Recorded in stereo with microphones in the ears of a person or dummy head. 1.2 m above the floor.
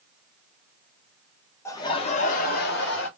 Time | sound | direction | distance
1.6 | laughter | 10° left (ahead or behind) | 0.6 m